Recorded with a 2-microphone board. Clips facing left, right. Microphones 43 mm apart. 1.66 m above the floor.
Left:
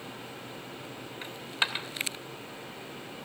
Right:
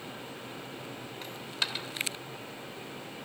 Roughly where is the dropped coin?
Left.